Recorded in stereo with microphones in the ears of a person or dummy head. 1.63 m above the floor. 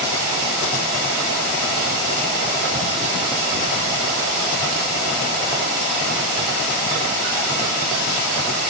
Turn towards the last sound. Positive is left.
No sound to turn to.